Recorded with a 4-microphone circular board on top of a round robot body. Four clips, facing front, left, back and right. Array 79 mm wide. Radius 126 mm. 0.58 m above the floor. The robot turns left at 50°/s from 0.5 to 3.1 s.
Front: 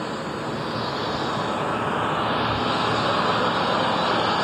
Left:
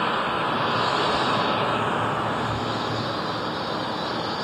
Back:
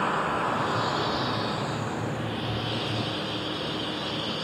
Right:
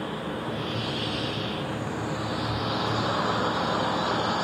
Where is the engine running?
120° left; by 4.4 s 10° right.